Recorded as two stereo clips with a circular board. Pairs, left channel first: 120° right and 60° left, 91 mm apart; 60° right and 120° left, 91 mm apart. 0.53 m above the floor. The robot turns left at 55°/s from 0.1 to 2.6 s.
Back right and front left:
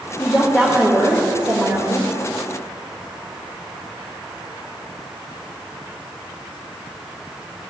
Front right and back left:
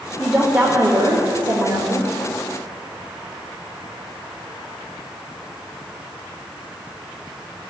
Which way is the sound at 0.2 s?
155° right.